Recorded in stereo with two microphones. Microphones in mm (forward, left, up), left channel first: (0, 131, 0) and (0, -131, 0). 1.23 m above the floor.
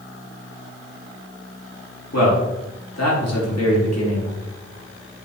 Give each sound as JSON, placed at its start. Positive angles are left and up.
{"t": 2.1, "sound": "a man speaking", "side_deg": 80, "distance_m": 2.0}